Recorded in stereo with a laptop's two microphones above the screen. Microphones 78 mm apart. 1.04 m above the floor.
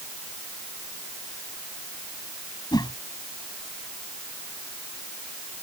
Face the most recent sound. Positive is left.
turn(degrees=60)  # may be behind; listen again after turning